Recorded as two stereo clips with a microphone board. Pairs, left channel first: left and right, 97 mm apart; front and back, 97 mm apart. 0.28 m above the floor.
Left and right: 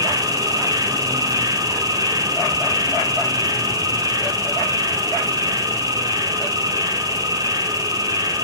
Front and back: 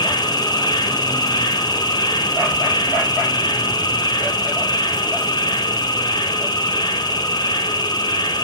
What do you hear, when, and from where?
0.0 s an insect: 40° right, 3.5 m